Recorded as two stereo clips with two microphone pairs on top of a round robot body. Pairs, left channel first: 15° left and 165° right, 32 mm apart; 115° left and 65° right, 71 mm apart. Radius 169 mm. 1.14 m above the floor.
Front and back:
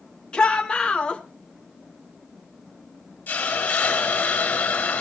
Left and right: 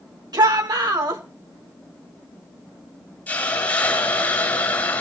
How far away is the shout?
About 5 m.